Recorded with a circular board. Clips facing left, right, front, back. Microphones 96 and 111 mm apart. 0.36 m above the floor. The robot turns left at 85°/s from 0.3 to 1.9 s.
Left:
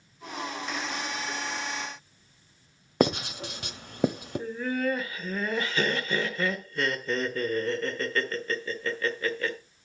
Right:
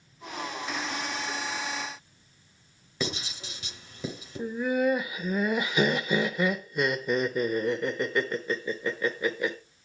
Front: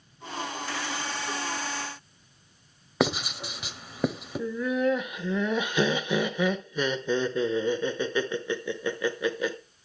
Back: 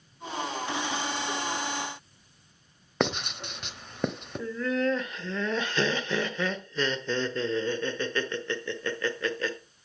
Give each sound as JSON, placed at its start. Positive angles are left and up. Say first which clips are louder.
{"t": 3.0, "sound": "writing", "louder": "left 9 dB, front 2 dB", "azimuth_deg": 85, "distance_m": 1.0}
{"t": 4.4, "sound": "laughter", "louder": "right 4 dB, front 2 dB", "azimuth_deg": -50, "distance_m": 0.8}